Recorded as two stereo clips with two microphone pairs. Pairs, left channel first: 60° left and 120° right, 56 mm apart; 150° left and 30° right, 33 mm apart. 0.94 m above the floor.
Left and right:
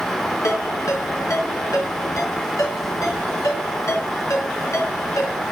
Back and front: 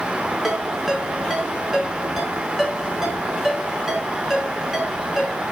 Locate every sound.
0.4 s a ringtone: 55° left, 4 m